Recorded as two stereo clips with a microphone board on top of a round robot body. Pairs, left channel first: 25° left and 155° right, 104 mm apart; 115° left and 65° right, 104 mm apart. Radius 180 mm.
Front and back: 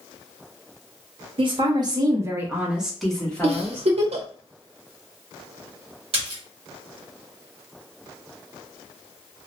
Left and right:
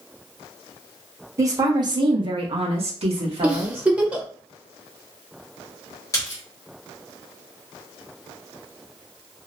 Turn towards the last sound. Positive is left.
turn(degrees=170)